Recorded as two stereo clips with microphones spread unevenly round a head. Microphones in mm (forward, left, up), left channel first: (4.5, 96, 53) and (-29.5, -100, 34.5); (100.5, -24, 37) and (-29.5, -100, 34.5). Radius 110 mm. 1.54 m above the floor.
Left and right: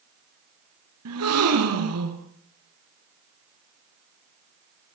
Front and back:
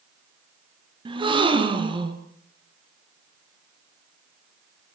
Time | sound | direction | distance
1.1 | a gasp | 95° right | 4.5 m